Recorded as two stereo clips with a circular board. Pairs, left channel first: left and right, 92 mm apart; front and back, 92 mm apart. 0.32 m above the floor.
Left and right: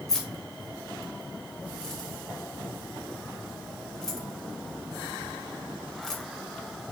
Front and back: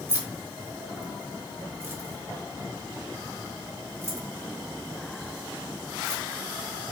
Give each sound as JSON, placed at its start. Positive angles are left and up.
{"t": 0.1, "sound": "keys jangling", "azimuth_deg": 170, "distance_m": 0.8}